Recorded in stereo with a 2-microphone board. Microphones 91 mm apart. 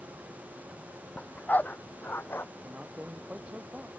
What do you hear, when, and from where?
1.2 s a dog barking: 15° left (ahead or behind); by 2.5 s 25° left (ahead or behind)
2.6 s a man speaking: 15° right (ahead or behind)